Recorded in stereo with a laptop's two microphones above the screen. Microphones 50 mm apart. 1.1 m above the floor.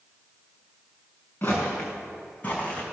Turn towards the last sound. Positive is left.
turn(degrees=30)  # may be behind; listen again after turning